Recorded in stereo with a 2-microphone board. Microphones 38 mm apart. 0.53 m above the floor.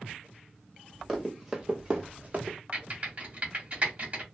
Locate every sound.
1.1 s running footsteps: 5° right (ahead or behind), 1.1 m; by 2.6 s 45° right (ahead or behind), 0.9 m
2.7 s typing on a keyboard: 35° right (ahead or behind), 1.3 m